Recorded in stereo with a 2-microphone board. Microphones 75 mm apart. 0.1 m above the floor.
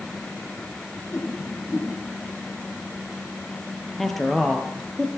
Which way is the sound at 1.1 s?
35° left (ahead or behind).